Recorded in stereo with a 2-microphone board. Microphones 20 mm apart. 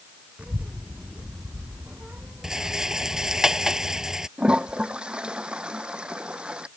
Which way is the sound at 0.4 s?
70° right (ahead or behind).